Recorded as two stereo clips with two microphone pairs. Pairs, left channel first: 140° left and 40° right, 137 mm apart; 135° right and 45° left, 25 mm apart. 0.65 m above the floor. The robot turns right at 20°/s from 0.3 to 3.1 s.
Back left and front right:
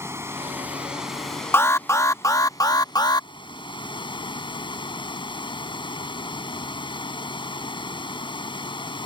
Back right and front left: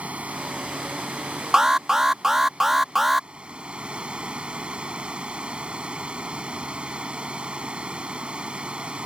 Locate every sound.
0.0 s running water: 30° left; by 9.1 s 85° left
1.5 s an alarm: 80° left; by 3.3 s 110° left